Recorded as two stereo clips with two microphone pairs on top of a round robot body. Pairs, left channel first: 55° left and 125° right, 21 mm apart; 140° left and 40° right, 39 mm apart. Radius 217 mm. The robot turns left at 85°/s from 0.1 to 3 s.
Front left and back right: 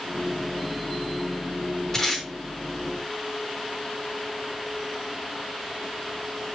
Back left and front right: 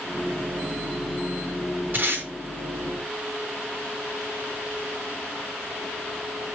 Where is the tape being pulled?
10° right, 3.5 m; by 2.2 s 35° right, 3.5 m.